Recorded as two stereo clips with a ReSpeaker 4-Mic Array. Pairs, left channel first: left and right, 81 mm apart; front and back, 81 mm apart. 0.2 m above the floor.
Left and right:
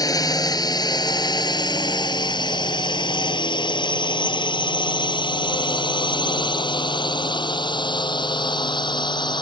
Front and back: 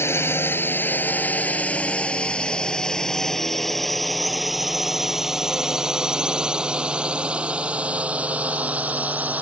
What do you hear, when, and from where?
0.0 s a drone: 55° left; by 9.4 s 110° left